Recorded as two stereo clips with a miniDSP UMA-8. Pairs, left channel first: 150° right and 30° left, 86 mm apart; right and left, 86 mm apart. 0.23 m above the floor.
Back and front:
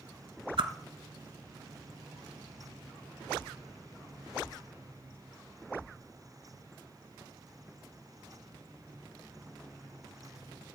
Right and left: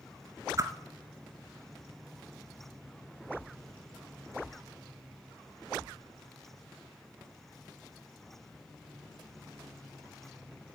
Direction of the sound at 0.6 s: 40° left.